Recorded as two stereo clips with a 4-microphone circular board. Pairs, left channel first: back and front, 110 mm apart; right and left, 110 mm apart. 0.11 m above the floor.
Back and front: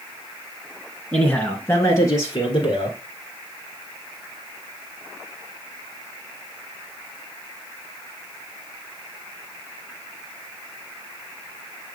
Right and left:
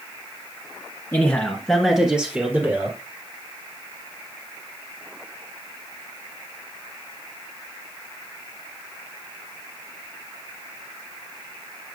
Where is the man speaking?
115° right, 1.4 m; by 3.0 s 150° left, 2 m.